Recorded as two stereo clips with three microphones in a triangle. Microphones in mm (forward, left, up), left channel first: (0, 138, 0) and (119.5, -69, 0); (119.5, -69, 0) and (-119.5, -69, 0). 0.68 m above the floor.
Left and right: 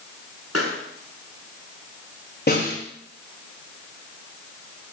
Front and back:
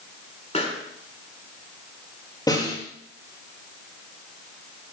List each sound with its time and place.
0.5 s a pop: 65° right, 4 m
2.5 s a snare drum: 75° left, 6.5 m